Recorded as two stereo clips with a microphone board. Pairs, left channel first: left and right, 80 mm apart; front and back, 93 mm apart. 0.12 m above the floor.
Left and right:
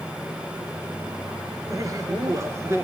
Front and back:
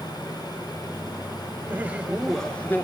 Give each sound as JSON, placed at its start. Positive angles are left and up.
{"t": 1.7, "sound": "laughter", "azimuth_deg": -120, "distance_m": 1.9}